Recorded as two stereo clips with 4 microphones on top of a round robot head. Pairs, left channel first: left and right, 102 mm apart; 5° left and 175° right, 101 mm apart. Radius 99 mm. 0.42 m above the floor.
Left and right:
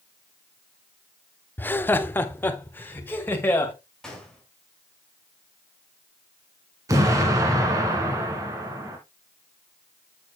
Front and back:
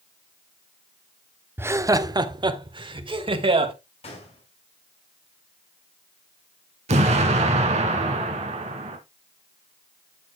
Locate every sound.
1.6 s laughter: 140° left, 0.8 m; by 3.7 s 160° left, 2.5 m
4.0 s a gunshot: 5° left, 4.5 m
6.9 s an explosion: 155° right, 1.8 m